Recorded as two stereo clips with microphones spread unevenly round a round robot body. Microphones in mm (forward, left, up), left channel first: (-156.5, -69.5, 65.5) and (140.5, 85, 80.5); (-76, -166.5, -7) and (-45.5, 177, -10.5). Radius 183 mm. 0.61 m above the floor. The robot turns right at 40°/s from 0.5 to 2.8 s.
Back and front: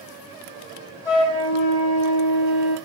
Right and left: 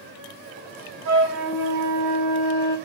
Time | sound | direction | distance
1.1 | a flute | 125° left | 6 m